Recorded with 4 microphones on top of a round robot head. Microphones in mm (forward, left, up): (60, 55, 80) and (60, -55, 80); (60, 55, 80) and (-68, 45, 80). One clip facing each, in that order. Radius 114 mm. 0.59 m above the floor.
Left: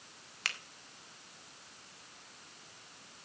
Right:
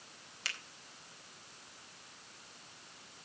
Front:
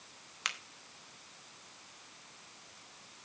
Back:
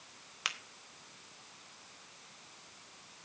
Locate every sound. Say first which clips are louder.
0.5 s a finger snap: left 4 dB, even; 100° left, 1.9 m